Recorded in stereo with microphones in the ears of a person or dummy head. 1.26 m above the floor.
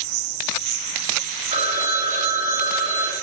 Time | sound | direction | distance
0.0 | an insect | 65° right (ahead or behind) | 3 m
1.5 | a phone ringing | 30° right (ahead or behind) | 1.5 m